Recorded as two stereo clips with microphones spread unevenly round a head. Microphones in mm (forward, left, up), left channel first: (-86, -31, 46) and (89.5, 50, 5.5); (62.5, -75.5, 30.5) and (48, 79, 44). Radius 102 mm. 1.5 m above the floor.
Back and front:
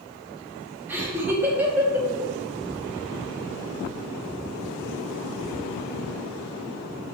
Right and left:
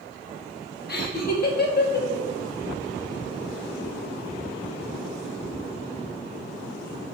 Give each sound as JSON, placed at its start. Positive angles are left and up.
{"t": 0.9, "sound": "laughter", "azimuth_deg": -60, "distance_m": 1.0}